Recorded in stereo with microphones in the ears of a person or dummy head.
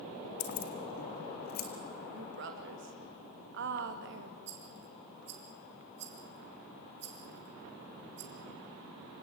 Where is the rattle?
85° right, 3.5 m.